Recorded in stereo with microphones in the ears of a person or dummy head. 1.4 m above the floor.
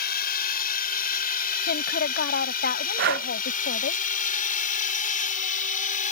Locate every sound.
0.0 s a drone: 60° left (ahead or behind); by 6.1 s 50° left (ahead or behind)
1.7 s a woman speaking: 70° left (ahead or behind)
3.0 s breathing: 65° right (ahead or behind)